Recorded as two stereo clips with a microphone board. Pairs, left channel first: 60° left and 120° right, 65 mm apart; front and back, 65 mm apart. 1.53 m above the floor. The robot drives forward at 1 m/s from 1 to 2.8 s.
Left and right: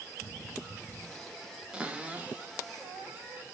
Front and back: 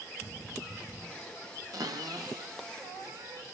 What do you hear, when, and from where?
1.7 s a cupboard door: 165° left, 1.5 m; by 3.4 s 170° left, 2.5 m